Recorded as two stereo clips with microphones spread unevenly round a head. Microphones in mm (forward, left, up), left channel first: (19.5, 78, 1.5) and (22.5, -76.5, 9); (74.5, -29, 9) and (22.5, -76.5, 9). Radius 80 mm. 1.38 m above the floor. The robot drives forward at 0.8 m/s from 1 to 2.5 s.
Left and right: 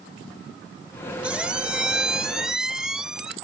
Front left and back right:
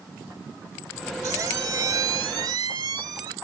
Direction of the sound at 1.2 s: 165° right.